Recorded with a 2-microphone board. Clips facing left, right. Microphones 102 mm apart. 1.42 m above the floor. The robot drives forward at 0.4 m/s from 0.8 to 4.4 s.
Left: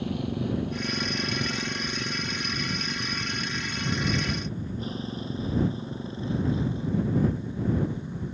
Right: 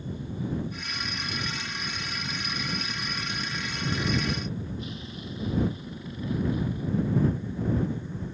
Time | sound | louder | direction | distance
0.0 | a motorcycle | left 5 dB | 70° left (ahead or behind) | ?